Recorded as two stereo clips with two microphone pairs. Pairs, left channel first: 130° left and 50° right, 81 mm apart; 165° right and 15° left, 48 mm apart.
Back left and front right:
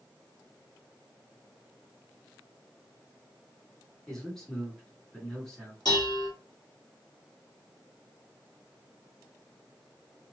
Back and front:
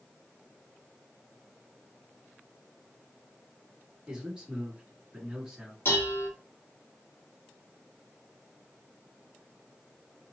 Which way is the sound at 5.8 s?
160° left.